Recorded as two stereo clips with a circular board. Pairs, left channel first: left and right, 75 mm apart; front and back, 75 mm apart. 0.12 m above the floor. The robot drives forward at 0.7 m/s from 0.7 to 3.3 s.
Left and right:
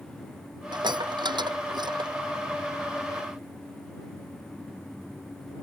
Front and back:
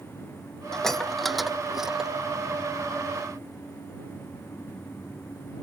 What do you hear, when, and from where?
0.7 s dishes clattering: 85° right; by 2.1 s 100° right